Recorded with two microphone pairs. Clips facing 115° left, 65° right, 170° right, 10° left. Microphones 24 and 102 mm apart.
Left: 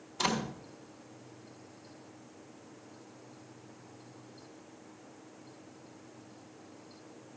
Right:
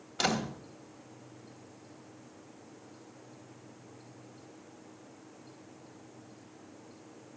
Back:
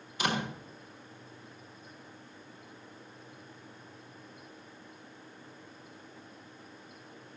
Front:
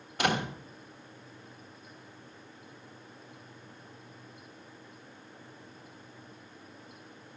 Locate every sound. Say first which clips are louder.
0.2 s a door slam: right 1 dB, front 3 dB; 25° right, 3 m